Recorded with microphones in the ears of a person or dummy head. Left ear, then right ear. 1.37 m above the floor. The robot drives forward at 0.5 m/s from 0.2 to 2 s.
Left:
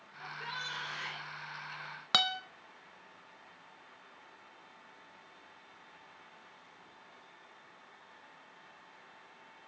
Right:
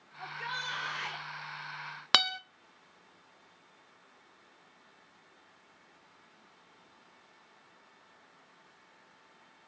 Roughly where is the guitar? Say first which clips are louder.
Right 3 dB; right.